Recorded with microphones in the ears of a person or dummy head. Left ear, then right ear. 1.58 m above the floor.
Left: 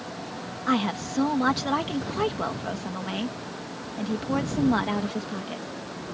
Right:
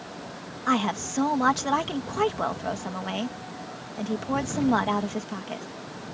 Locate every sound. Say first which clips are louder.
0.7 s a woman speaking: right 1 dB; 30° right (ahead or behind)